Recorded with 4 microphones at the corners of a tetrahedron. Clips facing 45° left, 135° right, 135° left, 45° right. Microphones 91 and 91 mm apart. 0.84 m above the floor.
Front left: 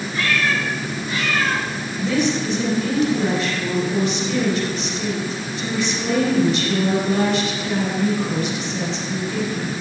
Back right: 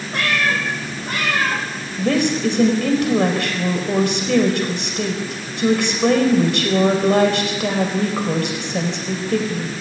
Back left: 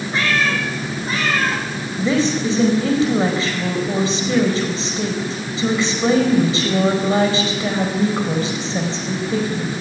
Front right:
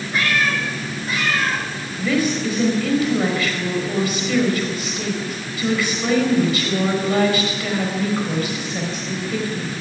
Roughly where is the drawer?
I don't hear a drawer.